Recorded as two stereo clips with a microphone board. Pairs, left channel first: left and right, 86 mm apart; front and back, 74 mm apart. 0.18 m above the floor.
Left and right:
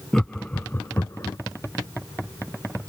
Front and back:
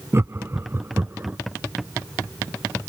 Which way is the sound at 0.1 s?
175° left.